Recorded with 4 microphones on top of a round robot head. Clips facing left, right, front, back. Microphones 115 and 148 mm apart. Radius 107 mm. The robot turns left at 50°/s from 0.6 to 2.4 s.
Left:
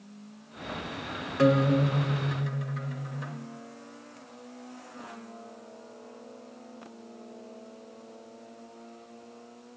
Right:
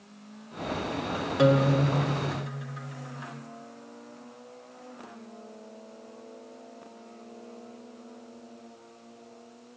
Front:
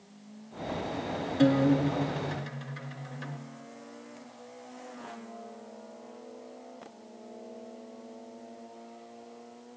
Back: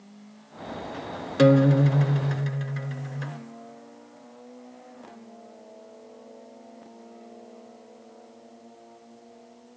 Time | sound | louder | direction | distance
1.4 | a guitar | even, back 5 dB | 165° right | 0.6 m